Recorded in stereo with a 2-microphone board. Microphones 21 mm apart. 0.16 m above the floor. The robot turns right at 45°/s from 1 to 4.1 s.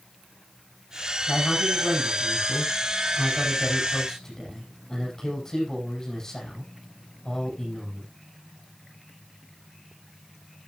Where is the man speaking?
30° left, 8 m; by 8.1 s 155° left, 8 m.